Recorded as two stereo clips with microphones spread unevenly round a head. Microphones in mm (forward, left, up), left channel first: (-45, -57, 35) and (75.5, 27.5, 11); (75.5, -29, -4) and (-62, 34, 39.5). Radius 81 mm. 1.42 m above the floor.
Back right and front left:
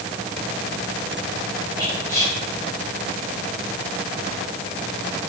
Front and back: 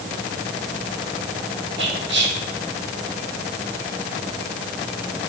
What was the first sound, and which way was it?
Whispering, 140° left.